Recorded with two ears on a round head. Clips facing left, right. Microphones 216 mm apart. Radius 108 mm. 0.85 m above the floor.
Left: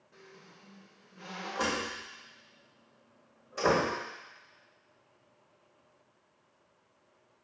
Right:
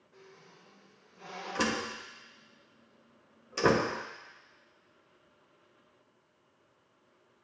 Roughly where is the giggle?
I don't hear a giggle.